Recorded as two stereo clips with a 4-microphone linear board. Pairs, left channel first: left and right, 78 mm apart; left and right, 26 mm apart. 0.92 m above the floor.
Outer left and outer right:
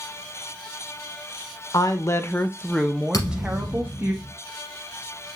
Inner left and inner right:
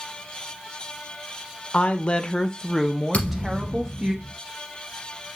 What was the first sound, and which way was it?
A woman speaking, 50° left (ahead or behind).